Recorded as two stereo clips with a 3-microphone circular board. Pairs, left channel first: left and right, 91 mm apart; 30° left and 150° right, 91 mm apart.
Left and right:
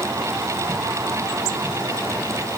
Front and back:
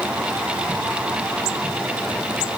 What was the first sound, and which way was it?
Only background noise.